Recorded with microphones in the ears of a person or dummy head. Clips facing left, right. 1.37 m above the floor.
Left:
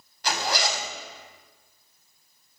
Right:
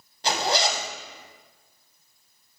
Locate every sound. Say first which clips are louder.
0.2 s a zipper: right 3 dB; 25° right (ahead or behind), 0.8 m